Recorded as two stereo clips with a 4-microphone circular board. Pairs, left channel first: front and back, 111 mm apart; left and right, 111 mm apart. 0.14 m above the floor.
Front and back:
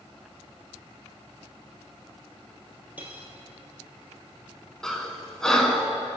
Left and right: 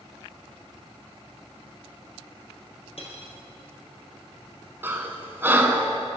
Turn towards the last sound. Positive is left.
turn(degrees=-75)